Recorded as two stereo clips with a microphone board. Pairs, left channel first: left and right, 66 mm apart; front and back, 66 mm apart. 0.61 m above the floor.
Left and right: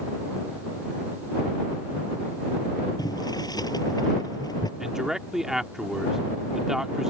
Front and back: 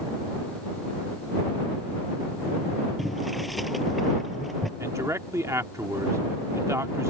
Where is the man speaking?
170° right.